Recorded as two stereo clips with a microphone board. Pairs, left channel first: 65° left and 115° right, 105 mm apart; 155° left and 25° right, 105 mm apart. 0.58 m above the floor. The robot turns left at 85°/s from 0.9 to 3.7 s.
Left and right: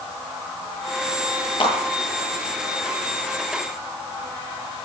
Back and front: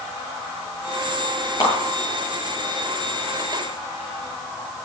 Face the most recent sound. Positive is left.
turn(degrees=-75)